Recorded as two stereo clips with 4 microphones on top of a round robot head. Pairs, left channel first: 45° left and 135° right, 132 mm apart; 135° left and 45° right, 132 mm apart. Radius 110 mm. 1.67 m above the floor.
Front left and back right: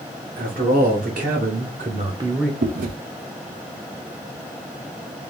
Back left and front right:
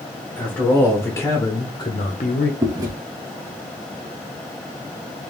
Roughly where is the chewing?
Right.